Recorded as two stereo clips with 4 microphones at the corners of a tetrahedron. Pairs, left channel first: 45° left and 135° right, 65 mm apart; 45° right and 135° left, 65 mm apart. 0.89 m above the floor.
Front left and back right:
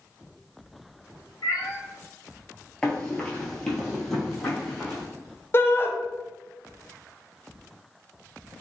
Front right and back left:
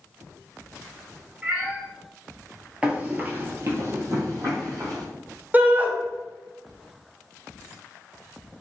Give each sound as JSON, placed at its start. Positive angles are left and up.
{"t": 1.4, "sound": "a cat meowing", "azimuth_deg": 65, "distance_m": 1.5}
{"t": 2.8, "sound": "running footsteps", "azimuth_deg": 85, "distance_m": 0.9}
{"t": 5.5, "sound": "a shout", "azimuth_deg": 85, "distance_m": 0.6}